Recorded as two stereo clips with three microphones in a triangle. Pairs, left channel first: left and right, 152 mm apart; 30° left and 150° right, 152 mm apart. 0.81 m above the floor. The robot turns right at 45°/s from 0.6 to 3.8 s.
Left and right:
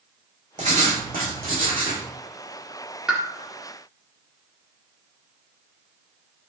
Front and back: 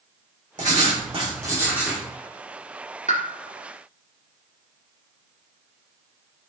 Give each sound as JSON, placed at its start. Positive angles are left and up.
{"t": 0.6, "sound": "writing", "azimuth_deg": -125, "distance_m": 2.5}
{"t": 3.1, "sound": "a pop", "azimuth_deg": -5, "distance_m": 1.5}